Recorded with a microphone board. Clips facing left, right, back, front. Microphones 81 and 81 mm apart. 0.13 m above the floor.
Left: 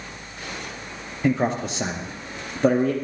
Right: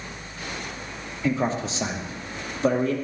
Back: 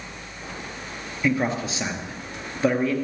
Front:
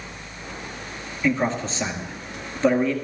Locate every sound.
1.2 s a man speaking: 100° left, 2 m